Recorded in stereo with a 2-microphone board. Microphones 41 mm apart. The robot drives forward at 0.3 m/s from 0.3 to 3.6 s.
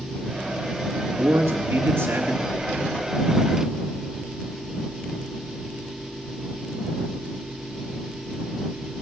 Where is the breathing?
20° right (ahead or behind), 3.5 m.